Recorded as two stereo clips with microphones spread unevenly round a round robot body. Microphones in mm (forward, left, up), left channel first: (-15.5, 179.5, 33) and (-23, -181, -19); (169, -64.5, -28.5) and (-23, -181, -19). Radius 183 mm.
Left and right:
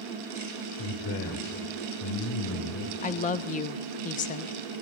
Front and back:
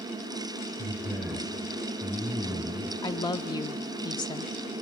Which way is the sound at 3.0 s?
35° left.